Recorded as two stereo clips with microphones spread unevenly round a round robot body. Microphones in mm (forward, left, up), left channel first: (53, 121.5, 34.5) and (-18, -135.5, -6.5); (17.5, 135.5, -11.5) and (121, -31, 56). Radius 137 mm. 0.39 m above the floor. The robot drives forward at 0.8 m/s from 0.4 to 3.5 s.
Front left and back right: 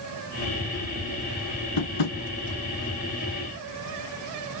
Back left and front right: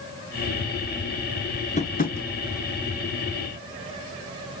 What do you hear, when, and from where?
1.8 s tapping: 65° left, 1.7 m; by 2.2 s 75° left, 1.6 m